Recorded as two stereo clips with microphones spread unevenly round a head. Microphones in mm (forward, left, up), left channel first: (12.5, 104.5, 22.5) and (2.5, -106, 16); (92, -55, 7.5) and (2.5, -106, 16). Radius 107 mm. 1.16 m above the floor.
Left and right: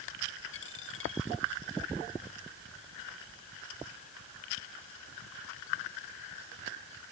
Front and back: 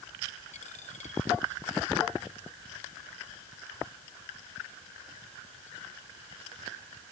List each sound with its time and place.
0.5 s a dropped coin: 55° left